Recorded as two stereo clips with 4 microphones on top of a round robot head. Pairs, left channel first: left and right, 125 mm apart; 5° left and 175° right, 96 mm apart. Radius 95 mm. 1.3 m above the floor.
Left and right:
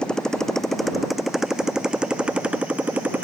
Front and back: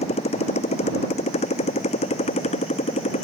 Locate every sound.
0.0 s a motorcycle: 5° left; by 3.2 s 15° right